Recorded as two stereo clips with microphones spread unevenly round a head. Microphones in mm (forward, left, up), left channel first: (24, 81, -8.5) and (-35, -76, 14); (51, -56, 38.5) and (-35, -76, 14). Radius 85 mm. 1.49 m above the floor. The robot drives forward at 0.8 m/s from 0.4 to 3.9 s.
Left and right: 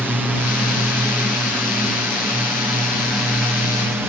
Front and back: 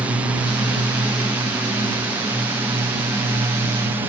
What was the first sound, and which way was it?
A drone, 165° left.